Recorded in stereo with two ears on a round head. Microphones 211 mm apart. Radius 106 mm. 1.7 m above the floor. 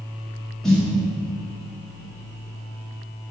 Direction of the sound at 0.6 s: Centre (ahead or behind).